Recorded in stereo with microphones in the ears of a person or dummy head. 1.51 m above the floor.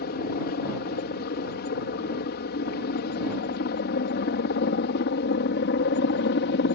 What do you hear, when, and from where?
0.0 s a helicopter: 50° left (ahead or behind); by 6.8 s 55° left (ahead or behind)